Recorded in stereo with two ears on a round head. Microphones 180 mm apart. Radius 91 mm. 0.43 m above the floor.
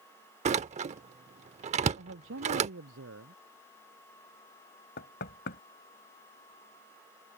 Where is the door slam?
35° right (ahead or behind).